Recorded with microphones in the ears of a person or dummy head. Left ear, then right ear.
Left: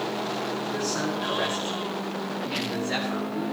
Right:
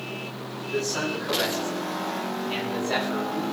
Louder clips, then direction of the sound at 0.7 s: Right 5 dB; 15° right (ahead or behind).